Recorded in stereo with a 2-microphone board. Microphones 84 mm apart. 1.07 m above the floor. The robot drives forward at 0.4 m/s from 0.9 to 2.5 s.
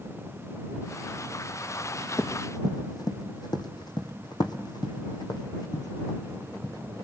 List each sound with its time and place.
2.2 s running footsteps: 45° left (ahead or behind), 2.5 m